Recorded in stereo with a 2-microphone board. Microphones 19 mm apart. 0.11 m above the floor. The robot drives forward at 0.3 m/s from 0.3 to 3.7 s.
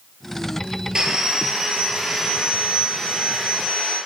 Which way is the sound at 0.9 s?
45° right (ahead or behind).